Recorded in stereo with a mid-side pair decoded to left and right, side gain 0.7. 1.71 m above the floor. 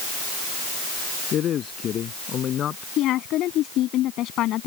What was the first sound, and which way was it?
A man speaking, 40° left.